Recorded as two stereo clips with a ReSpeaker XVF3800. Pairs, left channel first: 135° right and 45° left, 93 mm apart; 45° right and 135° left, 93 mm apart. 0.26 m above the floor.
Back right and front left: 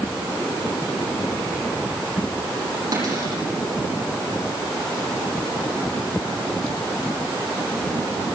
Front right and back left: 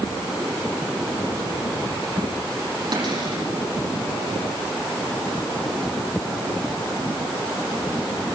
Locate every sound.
2.9 s a cupboard door: 95° left, 8 m